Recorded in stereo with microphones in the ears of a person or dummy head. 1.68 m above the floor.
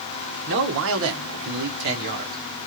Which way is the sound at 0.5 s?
50° right (ahead or behind).